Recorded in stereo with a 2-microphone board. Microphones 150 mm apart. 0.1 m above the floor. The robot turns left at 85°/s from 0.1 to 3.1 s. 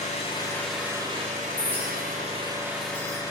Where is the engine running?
55° left, 10 m; by 3.3 s 160° left, 10 m.